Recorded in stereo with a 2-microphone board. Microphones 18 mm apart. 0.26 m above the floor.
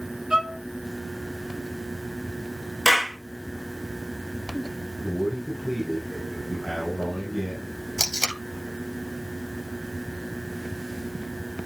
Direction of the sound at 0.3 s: 35° right (ahead or behind).